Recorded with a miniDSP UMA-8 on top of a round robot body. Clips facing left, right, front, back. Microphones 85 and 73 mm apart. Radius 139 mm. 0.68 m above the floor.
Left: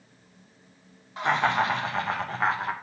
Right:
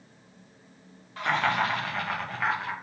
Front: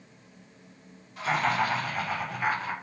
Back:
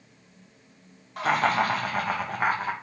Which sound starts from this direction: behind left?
Laughter, at 1.2 s.